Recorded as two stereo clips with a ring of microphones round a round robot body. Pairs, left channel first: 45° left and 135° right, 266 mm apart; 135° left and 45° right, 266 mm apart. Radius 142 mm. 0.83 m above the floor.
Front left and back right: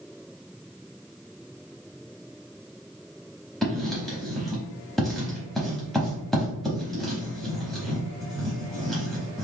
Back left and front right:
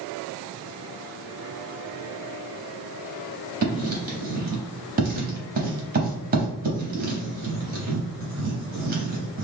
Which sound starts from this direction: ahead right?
Writing, at 3.6 s.